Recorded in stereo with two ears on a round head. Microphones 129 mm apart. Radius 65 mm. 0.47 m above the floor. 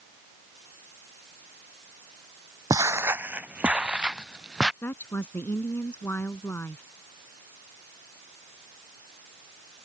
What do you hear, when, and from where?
2.7 s footsteps: 25° right (ahead or behind); by 4.7 s 5° right (ahead or behind)
4.8 s a woman speaking: 15° left (ahead or behind)